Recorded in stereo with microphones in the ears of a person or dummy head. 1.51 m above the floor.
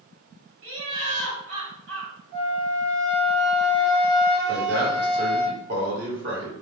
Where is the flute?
60° right (ahead or behind), 0.6 m.